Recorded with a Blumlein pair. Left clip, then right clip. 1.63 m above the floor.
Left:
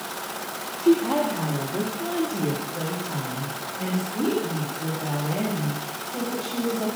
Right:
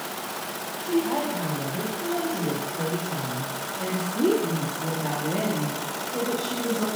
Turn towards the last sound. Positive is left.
turn(degrees=-35)